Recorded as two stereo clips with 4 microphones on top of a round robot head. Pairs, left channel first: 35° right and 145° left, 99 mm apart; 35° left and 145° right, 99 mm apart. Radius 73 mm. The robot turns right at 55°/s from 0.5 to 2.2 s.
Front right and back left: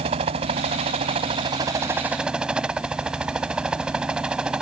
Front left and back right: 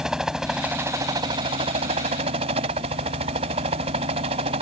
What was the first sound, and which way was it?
A helicopter, 130° left.